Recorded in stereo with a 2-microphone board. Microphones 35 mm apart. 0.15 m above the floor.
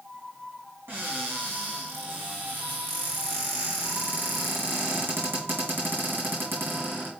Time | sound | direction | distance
0.9 | a cupboard door | 80° right | 4 m